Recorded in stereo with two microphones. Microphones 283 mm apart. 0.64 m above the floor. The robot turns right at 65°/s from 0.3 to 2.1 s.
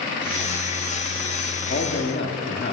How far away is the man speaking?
About 1.2 m.